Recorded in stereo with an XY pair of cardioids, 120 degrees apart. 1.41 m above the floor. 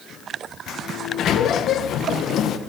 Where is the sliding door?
60° left, 0.7 m.